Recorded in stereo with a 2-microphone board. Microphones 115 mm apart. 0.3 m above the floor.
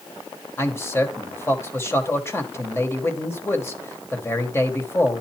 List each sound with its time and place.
0.6 s a man speaking: 20° left (ahead or behind), 1.4 m